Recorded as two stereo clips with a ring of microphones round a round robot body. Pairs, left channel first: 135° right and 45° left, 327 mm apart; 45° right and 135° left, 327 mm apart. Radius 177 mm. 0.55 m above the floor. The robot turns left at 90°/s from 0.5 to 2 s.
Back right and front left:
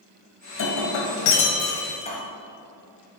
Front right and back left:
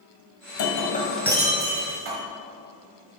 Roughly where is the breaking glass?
Right.